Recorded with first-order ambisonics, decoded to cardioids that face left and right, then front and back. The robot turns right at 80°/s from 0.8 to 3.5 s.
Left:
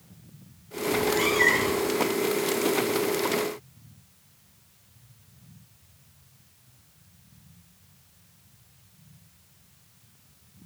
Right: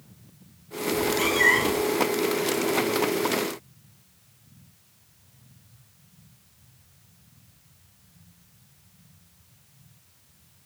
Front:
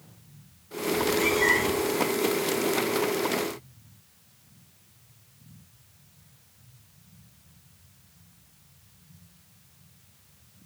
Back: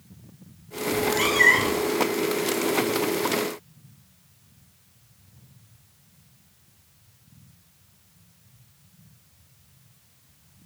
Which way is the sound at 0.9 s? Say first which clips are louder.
Even, back 3 dB; 140° left.